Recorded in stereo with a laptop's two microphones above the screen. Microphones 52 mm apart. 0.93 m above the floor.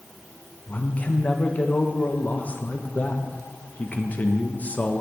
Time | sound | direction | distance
0.7 | a man speaking | 30° left (ahead or behind) | 0.9 m